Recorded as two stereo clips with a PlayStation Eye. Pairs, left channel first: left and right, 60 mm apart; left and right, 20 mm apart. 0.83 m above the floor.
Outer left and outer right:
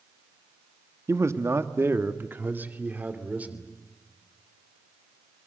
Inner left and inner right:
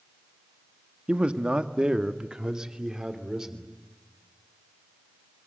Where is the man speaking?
60° right (ahead or behind), 1.4 m; by 3.7 s 25° right (ahead or behind), 3 m.